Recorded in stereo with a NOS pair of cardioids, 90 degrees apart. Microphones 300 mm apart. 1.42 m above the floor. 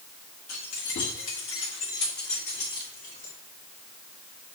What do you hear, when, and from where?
0.5 s keys jangling: 60° left, 2.5 m; by 3.3 s 25° left, 3 m